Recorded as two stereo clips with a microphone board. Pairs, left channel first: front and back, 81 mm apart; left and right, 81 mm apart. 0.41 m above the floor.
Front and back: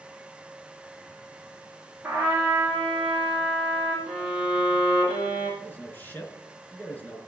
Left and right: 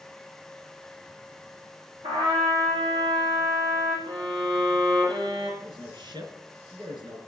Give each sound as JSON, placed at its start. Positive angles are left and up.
{"t": 2.0, "sound": "a trumpet", "azimuth_deg": -110, "distance_m": 7.0}
{"t": 4.1, "sound": "a violin", "azimuth_deg": -105, "distance_m": 7.0}
{"t": 5.6, "sound": "a man speaking", "azimuth_deg": -70, "distance_m": 4.5}